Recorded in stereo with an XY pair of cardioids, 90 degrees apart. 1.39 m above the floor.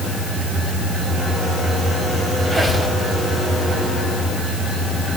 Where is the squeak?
10° left, 5 m.